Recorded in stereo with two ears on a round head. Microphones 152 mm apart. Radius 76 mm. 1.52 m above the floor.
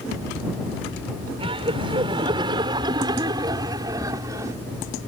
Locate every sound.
1.4 s laughter: 35° right (ahead or behind); by 4.6 s 20° right (ahead or behind)